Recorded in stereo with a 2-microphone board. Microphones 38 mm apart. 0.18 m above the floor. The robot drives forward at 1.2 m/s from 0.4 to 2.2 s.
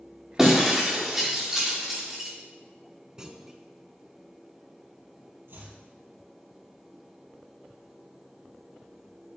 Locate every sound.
0.4 s breaking glass: 15° right (ahead or behind), 5 m; by 2.3 s 10° right (ahead or behind), 7 m
3.2 s a clunk: 15° right (ahead or behind), 1.3 m
5.5 s chopping: 70° right (ahead or behind), 3.5 m